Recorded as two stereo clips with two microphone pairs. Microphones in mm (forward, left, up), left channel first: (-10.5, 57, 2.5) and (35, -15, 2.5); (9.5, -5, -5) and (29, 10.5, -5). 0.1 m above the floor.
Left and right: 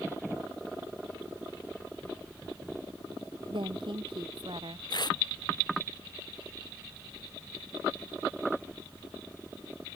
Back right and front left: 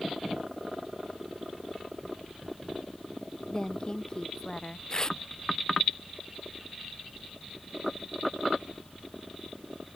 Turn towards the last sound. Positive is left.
turn(degrees=155)